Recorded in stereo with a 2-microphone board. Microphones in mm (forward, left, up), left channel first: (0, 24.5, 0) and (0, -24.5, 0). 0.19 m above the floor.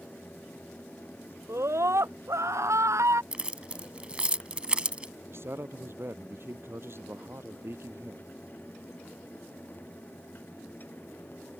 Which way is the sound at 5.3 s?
55° right (ahead or behind).